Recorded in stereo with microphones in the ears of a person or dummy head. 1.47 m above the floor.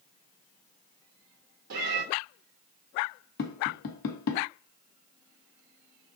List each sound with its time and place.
1.7 s a cat meowing: 50° right (ahead or behind), 1.8 m
3.4 s tapping: 60° left (ahead or behind), 1.1 m